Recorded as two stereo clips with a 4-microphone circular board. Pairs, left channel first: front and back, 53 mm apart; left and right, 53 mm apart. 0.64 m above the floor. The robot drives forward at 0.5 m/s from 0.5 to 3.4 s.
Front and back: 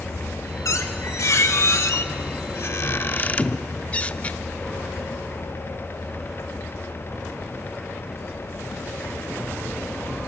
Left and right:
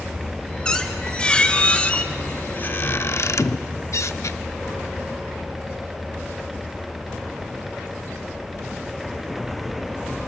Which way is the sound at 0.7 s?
15° left.